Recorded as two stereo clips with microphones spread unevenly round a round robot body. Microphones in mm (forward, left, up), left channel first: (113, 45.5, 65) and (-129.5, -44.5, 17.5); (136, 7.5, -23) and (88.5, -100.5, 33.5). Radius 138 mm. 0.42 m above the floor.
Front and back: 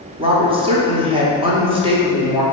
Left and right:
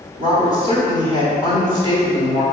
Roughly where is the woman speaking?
Behind.